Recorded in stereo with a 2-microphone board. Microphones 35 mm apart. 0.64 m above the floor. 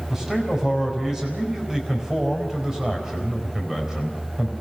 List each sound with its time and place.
0.1 s a man speaking: 15° right (ahead or behind), 4.5 m